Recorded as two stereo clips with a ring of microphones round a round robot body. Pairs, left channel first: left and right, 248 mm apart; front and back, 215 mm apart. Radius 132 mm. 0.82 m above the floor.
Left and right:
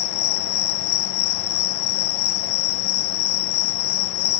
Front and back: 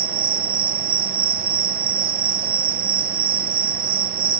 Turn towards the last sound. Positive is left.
turn(degrees=125)